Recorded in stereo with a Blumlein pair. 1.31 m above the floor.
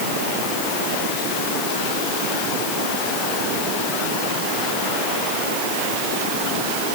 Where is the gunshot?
I don't hear a gunshot.